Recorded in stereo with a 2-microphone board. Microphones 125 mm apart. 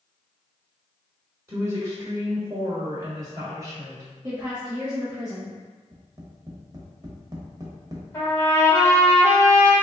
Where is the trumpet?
20° left (ahead or behind), 1.3 m.